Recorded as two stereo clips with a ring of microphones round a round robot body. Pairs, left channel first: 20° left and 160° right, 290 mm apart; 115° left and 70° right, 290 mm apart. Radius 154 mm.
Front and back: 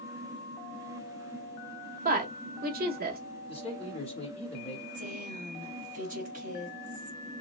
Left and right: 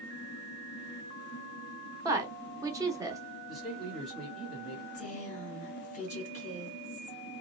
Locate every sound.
2.0 s a woman speaking: 135° right, 0.9 m
3.5 s a man speaking: 25° left, 1.4 m
4.9 s a woman speaking: 160° left, 1.0 m